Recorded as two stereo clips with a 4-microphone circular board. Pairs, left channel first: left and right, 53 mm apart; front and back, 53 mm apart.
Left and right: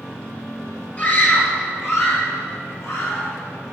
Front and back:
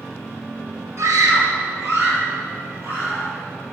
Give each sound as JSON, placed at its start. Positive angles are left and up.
{"t": 1.0, "sound": "a scream", "azimuth_deg": 150, "distance_m": 4.0}